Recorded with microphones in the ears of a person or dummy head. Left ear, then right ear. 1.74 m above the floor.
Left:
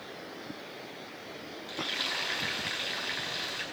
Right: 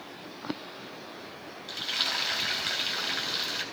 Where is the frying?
30° right (ahead or behind), 4.5 m.